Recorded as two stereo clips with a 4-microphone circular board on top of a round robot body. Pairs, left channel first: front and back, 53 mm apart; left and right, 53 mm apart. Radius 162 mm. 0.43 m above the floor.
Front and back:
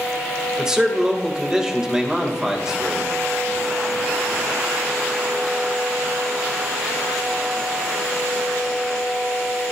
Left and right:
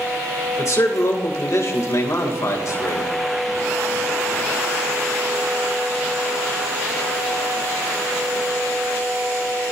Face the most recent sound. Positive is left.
turn(degrees=100)